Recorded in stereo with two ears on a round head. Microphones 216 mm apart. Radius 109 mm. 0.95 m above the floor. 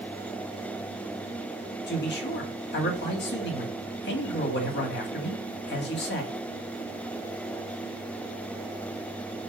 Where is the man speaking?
50° left (ahead or behind), 2.0 m.